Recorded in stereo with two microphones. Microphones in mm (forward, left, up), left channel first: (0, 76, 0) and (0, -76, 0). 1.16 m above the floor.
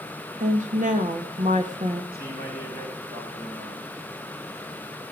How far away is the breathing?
I don't hear breathing.